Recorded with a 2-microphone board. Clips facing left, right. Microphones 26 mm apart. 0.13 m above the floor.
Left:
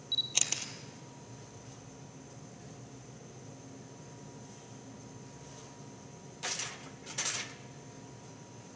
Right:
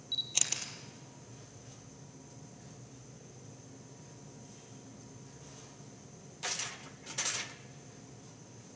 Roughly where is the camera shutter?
Centre.